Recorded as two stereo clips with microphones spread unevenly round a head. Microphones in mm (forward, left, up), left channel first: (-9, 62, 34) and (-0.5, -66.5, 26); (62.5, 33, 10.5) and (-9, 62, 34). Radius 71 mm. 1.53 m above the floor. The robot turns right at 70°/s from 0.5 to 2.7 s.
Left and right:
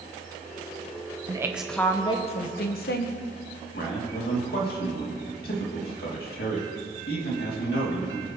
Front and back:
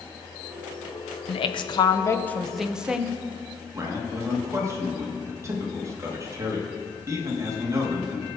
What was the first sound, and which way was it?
A woman speaking, 20° right.